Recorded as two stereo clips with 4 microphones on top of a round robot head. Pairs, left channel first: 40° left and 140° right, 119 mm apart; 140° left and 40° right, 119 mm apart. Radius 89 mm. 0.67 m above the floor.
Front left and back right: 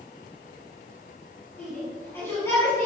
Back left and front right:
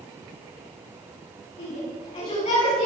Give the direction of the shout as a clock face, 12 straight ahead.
8 o'clock.